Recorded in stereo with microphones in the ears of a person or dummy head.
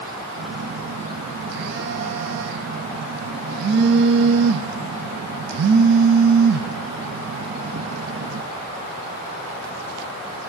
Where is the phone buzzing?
60° right (ahead or behind), 0.7 m.